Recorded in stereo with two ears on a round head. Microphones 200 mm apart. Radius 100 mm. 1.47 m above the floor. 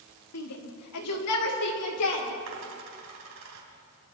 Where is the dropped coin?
65° right (ahead or behind), 4 m.